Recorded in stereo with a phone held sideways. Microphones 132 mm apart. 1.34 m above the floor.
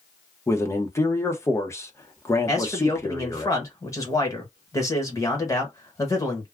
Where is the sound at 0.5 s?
20° left (ahead or behind), 0.9 m.